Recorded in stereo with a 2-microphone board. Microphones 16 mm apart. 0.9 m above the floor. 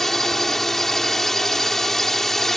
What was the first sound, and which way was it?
A drone, 25° left (ahead or behind).